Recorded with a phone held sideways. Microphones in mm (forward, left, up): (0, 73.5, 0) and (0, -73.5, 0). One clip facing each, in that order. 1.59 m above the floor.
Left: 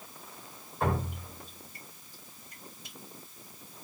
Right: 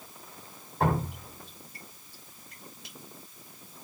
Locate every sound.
0.8 s dripping: 75° right (ahead or behind), 3 m